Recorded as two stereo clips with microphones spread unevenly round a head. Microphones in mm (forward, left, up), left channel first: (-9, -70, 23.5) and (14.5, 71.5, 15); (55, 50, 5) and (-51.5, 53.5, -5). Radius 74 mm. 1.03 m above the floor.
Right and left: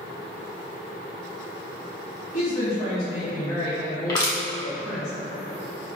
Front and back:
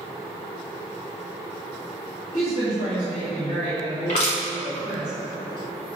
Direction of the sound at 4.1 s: 40° right.